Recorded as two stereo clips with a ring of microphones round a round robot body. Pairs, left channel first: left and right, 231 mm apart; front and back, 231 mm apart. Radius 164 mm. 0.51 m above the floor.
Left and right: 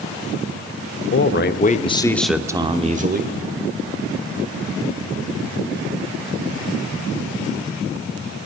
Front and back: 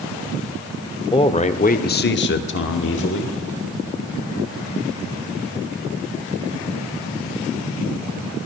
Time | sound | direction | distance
1.1 | a man speaking | 65° left | 1.2 m